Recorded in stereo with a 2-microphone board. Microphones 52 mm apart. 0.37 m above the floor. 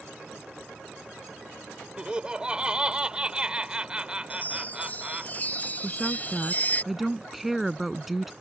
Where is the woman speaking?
5° right (ahead or behind).